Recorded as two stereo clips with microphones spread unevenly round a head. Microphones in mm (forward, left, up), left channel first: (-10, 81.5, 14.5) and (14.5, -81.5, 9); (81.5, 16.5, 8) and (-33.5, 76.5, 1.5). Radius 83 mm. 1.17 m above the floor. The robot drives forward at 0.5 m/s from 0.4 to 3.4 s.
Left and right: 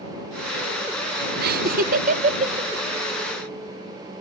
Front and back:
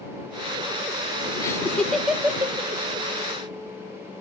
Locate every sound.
1.4 s laughter: 100° right, 0.8 m; by 2.7 s 135° right, 1.1 m